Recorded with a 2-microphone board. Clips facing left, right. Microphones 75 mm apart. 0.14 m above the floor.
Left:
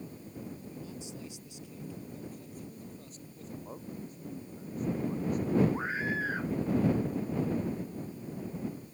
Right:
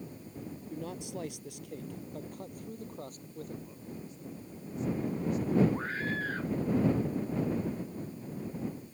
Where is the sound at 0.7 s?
65° right (ahead or behind); by 3.5 s 50° right (ahead or behind).